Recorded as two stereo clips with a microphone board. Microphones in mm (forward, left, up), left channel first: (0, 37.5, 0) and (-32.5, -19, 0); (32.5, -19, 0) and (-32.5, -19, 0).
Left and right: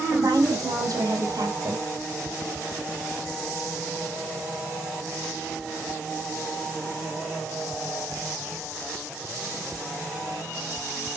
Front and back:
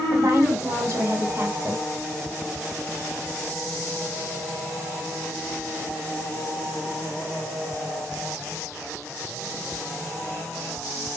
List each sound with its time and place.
0.1 s a woman speaking: 150° right, 6 m; by 1.8 s 130° right, 5 m